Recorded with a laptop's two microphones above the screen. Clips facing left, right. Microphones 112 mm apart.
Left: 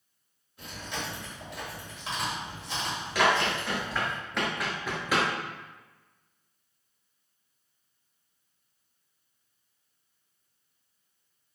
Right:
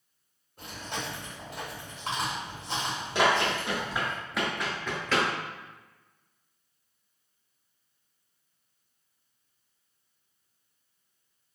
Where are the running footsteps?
25° right (ahead or behind), 1.1 m; by 5.3 s 15° left (ahead or behind), 1.3 m.